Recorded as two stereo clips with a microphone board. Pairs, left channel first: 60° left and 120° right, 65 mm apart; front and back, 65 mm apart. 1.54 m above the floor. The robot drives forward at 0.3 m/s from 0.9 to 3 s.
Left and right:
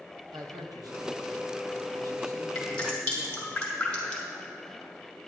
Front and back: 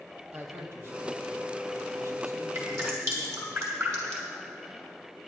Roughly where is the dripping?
Behind left.